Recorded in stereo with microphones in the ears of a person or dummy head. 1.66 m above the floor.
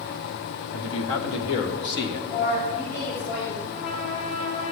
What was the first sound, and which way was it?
A man speaking, 80° left.